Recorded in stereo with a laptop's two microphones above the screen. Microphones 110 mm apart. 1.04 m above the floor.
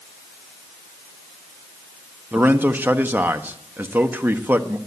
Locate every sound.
2.3 s a man speaking: 20° right (ahead or behind), 1.1 m